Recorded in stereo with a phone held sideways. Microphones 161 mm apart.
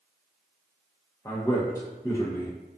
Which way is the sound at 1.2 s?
20° left (ahead or behind).